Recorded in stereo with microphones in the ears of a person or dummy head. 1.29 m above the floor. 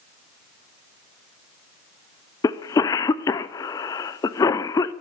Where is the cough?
20° left (ahead or behind), 0.6 m.